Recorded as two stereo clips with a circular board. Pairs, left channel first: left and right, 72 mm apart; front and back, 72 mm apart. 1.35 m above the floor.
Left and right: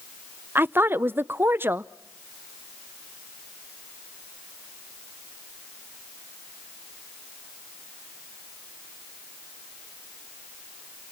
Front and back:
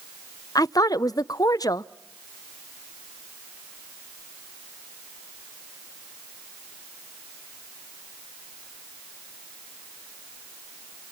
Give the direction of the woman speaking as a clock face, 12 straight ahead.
1 o'clock.